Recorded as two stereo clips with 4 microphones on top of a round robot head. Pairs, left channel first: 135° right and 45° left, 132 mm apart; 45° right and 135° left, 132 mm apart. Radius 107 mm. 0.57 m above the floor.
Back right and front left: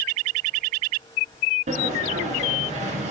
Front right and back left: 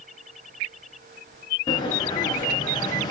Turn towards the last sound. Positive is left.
turn(degrees=10)